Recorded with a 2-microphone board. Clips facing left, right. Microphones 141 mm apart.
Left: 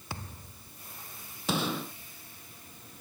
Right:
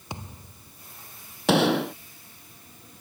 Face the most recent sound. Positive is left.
turn(degrees=-75)  # may be behind; listen again after turning